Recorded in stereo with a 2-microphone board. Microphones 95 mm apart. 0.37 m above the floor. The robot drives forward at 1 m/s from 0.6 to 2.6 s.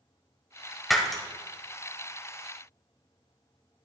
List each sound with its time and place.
0.9 s breaking glass: centre (ahead or behind), 1.0 m